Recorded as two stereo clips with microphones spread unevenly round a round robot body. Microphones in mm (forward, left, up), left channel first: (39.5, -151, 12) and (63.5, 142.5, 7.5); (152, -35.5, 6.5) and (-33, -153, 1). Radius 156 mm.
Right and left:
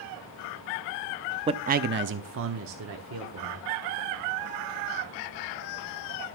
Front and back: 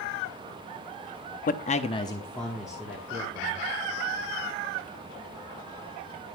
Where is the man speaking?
25° left, 0.7 m; by 3.6 s 135° left, 1.8 m.